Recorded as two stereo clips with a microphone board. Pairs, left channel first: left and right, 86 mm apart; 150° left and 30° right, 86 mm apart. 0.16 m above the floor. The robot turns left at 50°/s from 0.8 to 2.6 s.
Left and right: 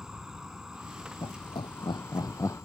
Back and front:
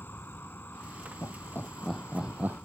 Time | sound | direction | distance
0.0 | an insect | 170° right | ?
1.2 | laughter | 100° left | ?